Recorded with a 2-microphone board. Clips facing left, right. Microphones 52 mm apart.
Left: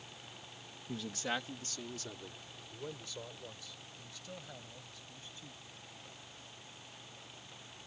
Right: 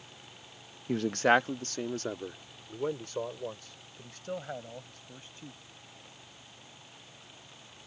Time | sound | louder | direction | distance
0.9 | a man speaking | right 14 dB | 55° right (ahead or behind) | ?